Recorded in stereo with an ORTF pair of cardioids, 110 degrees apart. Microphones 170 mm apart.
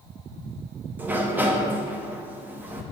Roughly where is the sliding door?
Ahead.